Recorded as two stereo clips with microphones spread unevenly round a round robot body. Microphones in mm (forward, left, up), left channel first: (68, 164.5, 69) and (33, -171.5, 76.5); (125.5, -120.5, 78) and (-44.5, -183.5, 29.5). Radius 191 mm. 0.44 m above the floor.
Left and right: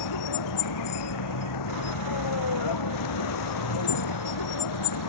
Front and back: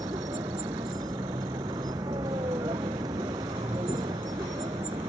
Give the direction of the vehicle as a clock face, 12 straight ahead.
8 o'clock.